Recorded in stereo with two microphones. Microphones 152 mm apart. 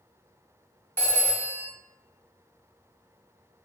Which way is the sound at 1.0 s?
15° left (ahead or behind).